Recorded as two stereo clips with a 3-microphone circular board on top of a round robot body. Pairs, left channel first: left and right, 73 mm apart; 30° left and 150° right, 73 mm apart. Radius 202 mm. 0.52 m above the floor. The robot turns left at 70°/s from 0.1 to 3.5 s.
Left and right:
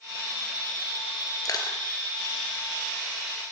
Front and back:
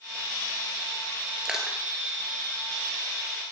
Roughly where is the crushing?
Behind left.